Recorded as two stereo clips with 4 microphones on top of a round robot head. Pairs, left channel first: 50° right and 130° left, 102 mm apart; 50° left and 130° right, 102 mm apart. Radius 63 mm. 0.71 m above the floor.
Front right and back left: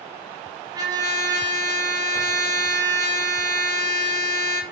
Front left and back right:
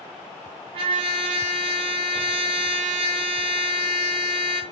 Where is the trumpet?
170° right, 0.6 m.